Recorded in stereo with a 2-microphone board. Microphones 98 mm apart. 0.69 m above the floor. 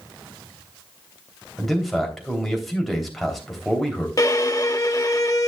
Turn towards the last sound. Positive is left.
turn(degrees=40)  # may be behind; listen again after turning